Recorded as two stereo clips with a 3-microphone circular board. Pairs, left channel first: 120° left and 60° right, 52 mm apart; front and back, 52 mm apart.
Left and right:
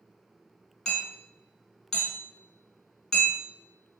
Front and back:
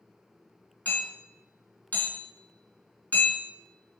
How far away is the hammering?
About 1.4 m.